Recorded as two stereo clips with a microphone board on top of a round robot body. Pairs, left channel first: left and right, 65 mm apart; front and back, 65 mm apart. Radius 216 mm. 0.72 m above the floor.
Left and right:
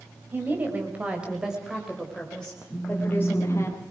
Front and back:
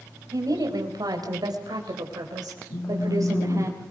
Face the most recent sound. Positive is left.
turn(degrees=10)